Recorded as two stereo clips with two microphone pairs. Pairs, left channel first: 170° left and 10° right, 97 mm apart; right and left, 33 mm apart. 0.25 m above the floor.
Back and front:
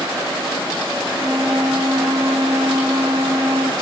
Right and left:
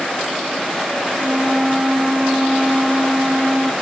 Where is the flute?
45° left, 2.5 m.